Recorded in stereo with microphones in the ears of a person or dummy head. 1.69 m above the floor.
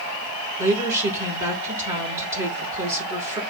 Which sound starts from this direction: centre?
A woman speaking, at 0.6 s.